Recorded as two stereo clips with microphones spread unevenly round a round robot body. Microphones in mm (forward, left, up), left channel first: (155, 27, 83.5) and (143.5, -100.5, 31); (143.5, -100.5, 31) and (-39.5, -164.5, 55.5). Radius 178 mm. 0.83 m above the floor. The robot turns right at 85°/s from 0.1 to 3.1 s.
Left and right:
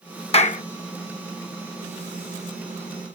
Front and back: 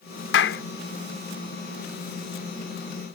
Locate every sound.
0.3 s a clap: 40° left; by 0.6 s 65° left